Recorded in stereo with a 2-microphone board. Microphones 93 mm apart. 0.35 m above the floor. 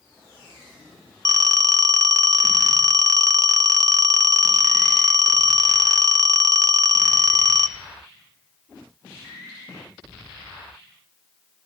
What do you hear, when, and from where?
1.2 s a phone ringing: 40° right (ahead or behind), 0.5 m